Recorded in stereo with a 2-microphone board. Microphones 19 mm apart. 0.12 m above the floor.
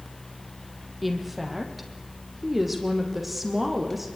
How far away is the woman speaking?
About 4 m.